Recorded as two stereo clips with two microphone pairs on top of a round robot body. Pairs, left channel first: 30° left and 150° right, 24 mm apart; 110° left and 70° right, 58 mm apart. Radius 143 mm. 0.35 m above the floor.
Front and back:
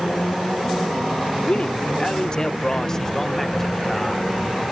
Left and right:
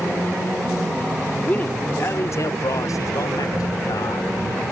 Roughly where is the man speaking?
Ahead left.